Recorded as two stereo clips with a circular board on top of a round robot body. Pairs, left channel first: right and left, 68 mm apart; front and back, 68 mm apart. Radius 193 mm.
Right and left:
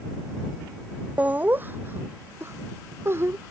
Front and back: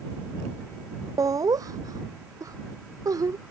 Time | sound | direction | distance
1.2 | laughter | 155° left | ?